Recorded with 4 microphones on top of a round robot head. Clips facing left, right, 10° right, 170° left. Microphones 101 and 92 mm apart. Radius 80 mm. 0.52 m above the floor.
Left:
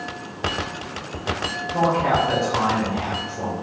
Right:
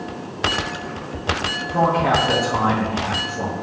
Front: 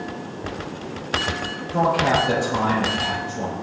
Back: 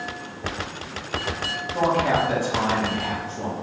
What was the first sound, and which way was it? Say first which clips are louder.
A man speaking: right 2 dB, front 2 dB; 10° right.